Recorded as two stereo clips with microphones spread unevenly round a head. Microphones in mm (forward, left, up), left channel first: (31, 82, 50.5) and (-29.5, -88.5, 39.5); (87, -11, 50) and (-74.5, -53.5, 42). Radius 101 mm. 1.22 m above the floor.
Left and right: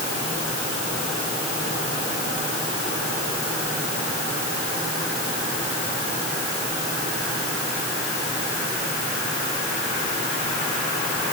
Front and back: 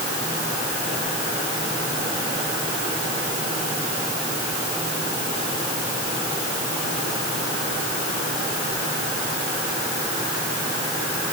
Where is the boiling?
No boiling in this recording.